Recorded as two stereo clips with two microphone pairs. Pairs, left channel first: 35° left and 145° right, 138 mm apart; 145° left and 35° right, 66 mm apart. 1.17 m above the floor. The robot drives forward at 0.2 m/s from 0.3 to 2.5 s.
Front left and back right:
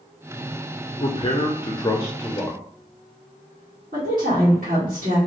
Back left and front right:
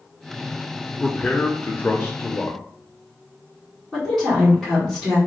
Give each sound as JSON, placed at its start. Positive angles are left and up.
{"t": 1.0, "sound": "a man speaking", "azimuth_deg": 75, "distance_m": 0.5}
{"t": 3.9, "sound": "a woman speaking", "azimuth_deg": -130, "distance_m": 2.0}